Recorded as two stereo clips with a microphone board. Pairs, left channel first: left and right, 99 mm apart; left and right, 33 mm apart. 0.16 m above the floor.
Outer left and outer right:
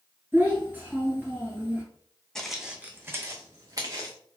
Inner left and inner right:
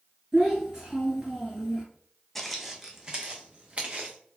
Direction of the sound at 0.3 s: 20° right (ahead or behind).